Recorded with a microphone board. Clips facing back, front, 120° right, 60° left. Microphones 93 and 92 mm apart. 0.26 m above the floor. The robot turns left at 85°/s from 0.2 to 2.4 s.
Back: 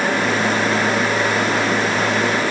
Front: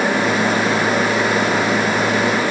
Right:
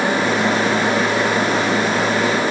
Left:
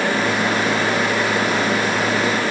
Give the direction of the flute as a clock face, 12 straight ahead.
I don't hear a flute.